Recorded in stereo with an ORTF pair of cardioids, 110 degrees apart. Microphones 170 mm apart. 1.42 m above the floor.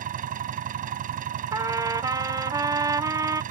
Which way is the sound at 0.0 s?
55° right.